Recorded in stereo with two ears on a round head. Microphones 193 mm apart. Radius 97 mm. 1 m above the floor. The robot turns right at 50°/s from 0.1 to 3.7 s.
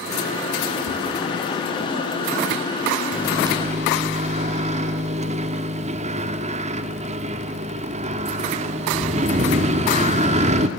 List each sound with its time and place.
0.9 s tapping: 75° left (ahead or behind), 4 m; by 1.1 s 80° left, 4 m
3.1 s a microwave: 5° right (ahead or behind), 1.7 m; by 10.7 s 30° right (ahead or behind), 1.7 m